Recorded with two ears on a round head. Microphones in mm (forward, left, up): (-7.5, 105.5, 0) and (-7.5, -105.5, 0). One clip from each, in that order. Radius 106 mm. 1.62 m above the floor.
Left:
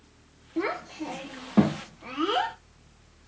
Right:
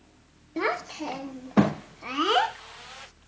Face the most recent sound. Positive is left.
turn(degrees=-35)  # may be behind; listen again after turning